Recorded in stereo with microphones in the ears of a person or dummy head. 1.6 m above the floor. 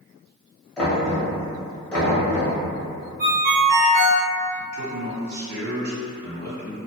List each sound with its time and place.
0.8 s knocking: 5° left (ahead or behind), 0.9 m
3.2 s a ringtone: 50° right (ahead or behind), 1.2 m
4.6 s a man speaking: 65° right (ahead or behind), 1.9 m